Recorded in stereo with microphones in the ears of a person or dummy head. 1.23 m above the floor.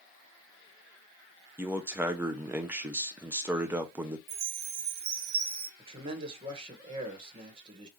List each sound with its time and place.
1.6 s a man speaking: 5° right (ahead or behind), 0.6 m
4.3 s a chime: 35° right (ahead or behind), 0.8 m
5.8 s a man speaking: 35° right (ahead or behind), 1.4 m